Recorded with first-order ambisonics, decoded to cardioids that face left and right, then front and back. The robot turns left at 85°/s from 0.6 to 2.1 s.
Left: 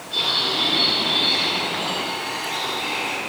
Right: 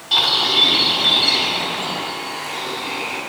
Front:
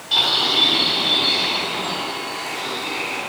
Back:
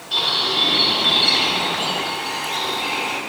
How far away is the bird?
About 3.5 m.